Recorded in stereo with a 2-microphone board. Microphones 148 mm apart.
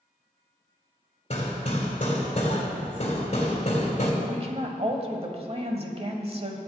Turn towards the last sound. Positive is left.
turn(degrees=-45)  # may be behind; listen again after turning